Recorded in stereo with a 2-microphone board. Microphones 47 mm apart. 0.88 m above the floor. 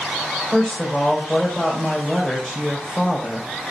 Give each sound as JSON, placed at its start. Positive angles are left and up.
{"t": 0.5, "sound": "a woman speaking", "side_deg": -5, "distance_m": 4.0}